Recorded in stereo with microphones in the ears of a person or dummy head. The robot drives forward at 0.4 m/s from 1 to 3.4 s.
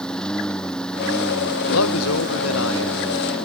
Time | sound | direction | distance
0.0 | a lawn mower | 5° left (ahead or behind) | ?
1.7 | a man speaking | 80° left | ?